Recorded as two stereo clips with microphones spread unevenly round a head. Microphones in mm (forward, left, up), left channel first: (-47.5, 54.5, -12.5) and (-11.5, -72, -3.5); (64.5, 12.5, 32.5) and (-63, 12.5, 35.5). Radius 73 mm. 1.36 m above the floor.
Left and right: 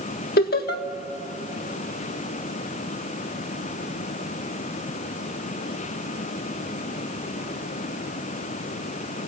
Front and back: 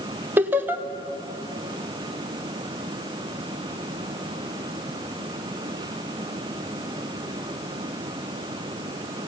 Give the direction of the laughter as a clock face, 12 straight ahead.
8 o'clock.